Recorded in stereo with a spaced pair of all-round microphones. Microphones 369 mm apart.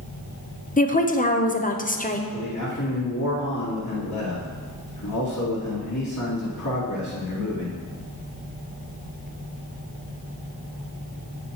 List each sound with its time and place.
0.8 s a woman speaking: 20° left (ahead or behind), 0.5 m
2.3 s a man speaking: 50° left (ahead or behind), 2 m